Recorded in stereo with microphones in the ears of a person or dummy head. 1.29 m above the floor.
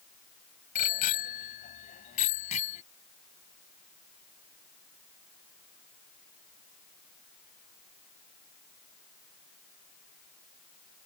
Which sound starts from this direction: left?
A bicycle bell, at 0.8 s.